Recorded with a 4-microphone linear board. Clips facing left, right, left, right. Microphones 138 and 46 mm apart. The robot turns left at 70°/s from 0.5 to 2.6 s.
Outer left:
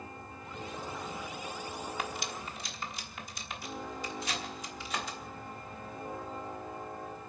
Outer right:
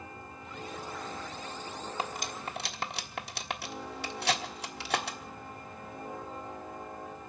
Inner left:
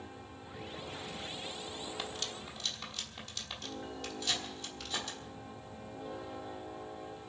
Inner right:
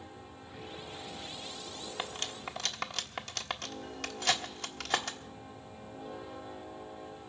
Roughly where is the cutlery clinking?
Right.